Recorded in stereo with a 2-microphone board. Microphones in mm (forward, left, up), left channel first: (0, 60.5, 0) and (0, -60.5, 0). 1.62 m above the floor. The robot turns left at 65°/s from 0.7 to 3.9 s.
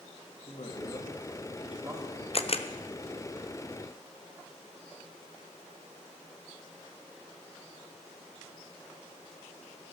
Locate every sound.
0.5 s a woman speaking: 55° left, 2.5 m; by 2.2 s 45° right, 2.5 m
2.3 s a camera shutter: 50° left (ahead or behind), 0.6 m